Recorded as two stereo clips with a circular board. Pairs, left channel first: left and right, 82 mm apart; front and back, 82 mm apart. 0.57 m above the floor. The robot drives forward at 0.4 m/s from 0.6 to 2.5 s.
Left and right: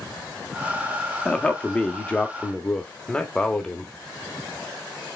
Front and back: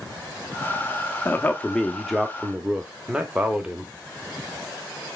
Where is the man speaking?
25° left, 0.8 m; by 3.9 s 140° left, 0.7 m.